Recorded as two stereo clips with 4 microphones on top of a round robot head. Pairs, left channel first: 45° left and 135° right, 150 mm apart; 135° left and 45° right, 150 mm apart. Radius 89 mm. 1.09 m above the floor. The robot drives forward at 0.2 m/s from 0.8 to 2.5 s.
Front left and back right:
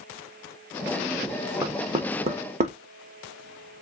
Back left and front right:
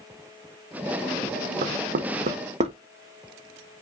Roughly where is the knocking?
Right.